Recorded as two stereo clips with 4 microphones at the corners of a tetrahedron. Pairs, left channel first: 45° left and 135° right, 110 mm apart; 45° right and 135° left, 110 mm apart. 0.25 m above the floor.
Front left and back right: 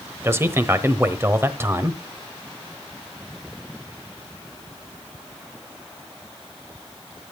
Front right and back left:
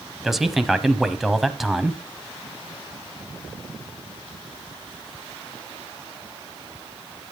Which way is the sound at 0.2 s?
140° right.